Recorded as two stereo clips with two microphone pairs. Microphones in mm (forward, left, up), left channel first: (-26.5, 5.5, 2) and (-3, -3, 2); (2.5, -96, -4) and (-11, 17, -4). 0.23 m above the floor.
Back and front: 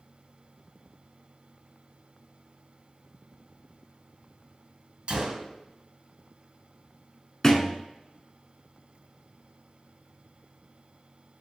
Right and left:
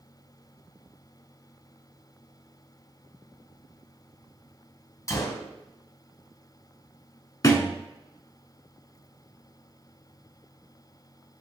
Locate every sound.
5.1 s a gunshot: 40° right, 0.7 m
7.4 s a thud: 135° right, 0.7 m